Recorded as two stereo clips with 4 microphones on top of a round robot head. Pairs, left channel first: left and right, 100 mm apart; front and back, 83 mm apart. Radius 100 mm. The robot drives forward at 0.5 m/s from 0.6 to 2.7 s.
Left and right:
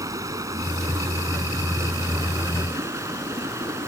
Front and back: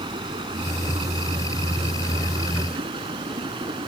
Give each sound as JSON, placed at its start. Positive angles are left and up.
{"t": 0.0, "sound": "running water", "azimuth_deg": -145}